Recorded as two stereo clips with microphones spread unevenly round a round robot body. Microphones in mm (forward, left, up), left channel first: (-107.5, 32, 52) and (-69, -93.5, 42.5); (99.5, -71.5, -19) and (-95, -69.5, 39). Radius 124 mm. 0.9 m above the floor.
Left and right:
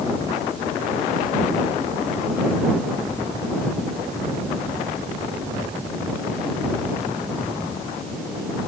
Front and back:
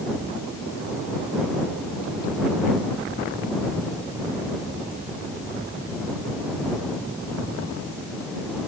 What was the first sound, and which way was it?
Only background noise.